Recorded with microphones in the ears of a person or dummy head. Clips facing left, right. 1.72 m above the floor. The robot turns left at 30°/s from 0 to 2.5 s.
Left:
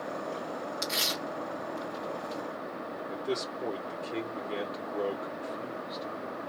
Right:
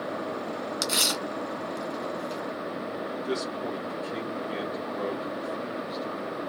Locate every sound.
0.8 s tearing paper: 70° right (ahead or behind), 1.8 m; by 2.4 s 45° right (ahead or behind), 1.8 m
3.1 s a man speaking: 5° right (ahead or behind), 1.7 m